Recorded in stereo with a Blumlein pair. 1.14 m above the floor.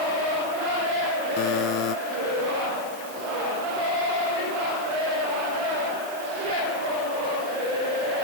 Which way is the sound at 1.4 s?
40° left.